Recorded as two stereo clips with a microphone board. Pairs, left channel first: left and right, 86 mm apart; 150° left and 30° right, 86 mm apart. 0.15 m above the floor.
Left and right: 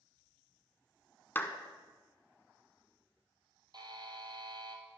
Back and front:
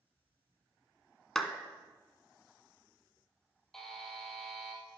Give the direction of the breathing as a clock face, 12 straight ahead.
I don't hear breathing.